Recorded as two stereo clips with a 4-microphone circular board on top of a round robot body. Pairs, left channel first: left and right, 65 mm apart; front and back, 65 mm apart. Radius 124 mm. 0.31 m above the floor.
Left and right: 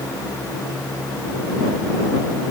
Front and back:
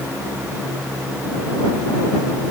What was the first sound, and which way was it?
Only background noise.